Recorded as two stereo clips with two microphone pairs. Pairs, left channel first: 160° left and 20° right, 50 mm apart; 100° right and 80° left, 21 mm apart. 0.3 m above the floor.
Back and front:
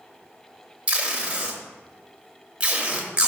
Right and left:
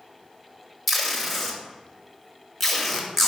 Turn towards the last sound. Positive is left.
turn(degrees=-30)